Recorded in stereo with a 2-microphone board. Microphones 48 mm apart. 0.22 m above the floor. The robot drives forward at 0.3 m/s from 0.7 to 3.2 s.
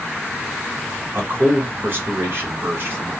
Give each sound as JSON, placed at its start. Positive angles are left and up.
{"t": 1.1, "sound": "a man speaking", "side_deg": -55, "distance_m": 1.6}